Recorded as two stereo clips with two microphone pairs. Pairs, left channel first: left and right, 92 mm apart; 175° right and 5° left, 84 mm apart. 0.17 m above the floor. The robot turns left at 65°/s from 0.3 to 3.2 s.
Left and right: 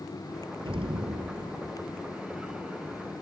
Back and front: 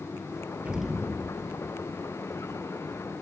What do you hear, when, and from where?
0.7 s an explosion: 70° right, 1.1 m; by 1.9 s 150° right, 1.1 m